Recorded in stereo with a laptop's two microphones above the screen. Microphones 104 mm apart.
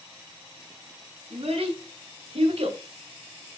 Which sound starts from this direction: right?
A child speaking, at 1.3 s.